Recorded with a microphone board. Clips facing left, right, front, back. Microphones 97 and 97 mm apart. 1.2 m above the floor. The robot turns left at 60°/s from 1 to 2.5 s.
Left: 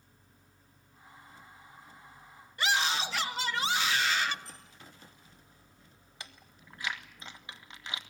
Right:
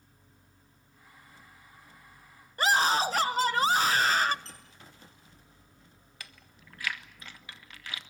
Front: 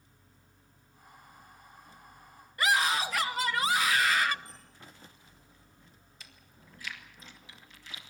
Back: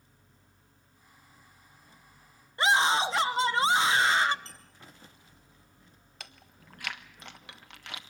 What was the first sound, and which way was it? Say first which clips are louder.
A scream: right 5 dB, back 3 dB; 125° right.